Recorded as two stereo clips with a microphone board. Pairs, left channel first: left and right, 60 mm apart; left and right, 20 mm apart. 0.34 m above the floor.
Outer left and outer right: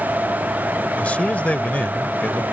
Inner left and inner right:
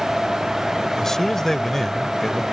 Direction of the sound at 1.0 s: 25° left (ahead or behind).